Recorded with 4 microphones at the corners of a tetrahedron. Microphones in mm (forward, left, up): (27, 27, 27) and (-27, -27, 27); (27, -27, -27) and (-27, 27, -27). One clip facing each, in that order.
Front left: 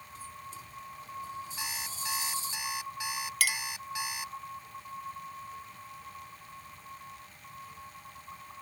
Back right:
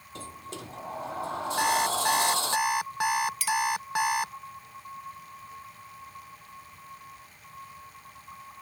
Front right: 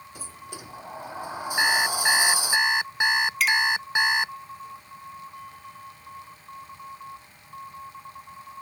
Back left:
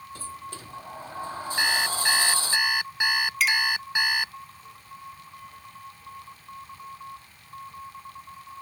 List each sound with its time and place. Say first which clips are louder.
0.1 s a sliding door: back right 5 dB, back left 2 dB; 125° right
1.6 s an alarm clock: back right 15 dB, front right 3 dB; 115° right
3.4 s a clink: back right 6 dB, front right 1 dB; 45° left